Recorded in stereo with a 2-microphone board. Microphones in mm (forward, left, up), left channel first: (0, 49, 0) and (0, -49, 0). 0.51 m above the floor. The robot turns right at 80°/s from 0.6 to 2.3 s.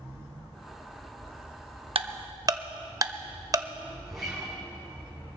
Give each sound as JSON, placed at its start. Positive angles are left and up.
{"t": 1.9, "sound": "ticking", "side_deg": -65, "distance_m": 0.5}
{"t": 4.0, "sound": "a guitar", "side_deg": -5, "distance_m": 5.5}